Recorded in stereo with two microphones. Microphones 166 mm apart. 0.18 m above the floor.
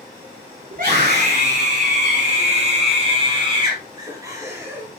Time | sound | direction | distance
0.7 | a scream | 55° right (ahead or behind) | 3 m